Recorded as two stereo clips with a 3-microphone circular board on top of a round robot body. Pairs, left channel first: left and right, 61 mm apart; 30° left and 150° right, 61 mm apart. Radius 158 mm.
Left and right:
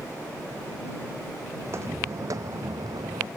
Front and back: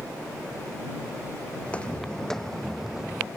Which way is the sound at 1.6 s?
40° right.